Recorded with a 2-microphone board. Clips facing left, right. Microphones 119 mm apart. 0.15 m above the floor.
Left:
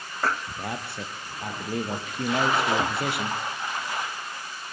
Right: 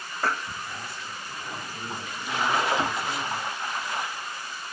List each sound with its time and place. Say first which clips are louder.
0.6 s a man speaking: left 4 dB; 70° left (ahead or behind), 3.5 m